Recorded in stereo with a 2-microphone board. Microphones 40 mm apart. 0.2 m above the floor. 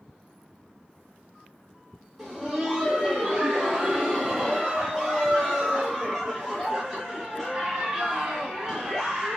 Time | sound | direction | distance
2.2 | laughter | centre (ahead or behind) | 1.2 m